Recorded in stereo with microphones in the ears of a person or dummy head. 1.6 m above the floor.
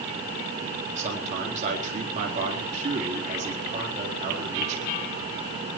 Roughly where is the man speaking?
Right.